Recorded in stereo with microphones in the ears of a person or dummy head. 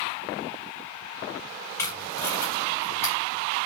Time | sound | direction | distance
1.8 | tape being pulled | 15° left (ahead or behind) | 3.5 m